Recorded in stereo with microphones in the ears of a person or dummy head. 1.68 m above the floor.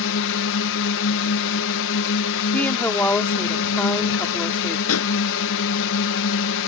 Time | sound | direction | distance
0.0 | a drone | 65° left (ahead or behind) | ?
2.5 | a woman speaking | 10° left (ahead or behind) | ?
4.9 | a pop | 80° left | ?